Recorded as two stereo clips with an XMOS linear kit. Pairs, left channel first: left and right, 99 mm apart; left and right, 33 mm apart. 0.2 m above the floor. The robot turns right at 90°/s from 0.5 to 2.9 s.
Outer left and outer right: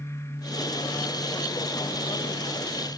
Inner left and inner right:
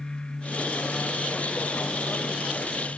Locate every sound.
Only background noise.